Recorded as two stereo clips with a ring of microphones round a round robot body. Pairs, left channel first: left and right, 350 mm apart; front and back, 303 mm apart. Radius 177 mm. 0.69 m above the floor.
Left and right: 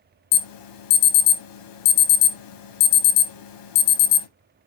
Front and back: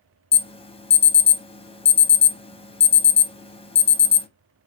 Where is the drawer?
I don't hear a drawer.